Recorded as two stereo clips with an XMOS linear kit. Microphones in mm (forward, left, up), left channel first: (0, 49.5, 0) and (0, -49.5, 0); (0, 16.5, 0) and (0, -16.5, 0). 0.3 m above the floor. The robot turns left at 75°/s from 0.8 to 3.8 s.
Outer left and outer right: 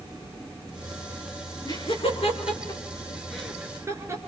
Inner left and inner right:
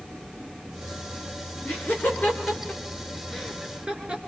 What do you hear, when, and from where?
1.6 s laughter: 45° left (ahead or behind), 5 m; by 4.2 s 30° right (ahead or behind), 5 m